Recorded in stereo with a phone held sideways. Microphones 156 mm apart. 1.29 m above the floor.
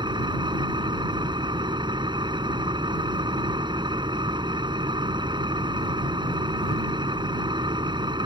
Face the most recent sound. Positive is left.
turn(degrees=-30)  # may be behind; listen again after turning